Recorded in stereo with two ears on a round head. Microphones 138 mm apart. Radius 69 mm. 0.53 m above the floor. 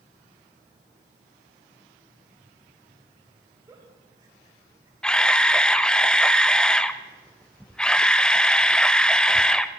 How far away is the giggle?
About 3.5 m.